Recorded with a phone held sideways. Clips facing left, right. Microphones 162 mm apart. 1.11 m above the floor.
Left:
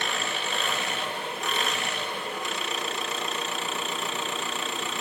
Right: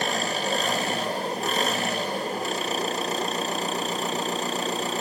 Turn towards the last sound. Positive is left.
turn(degrees=-35)  # may be behind; listen again after turning